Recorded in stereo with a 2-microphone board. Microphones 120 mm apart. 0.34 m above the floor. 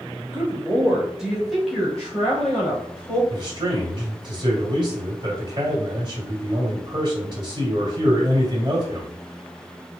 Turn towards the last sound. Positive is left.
turn(degrees=-40)  # may be behind; listen again after turning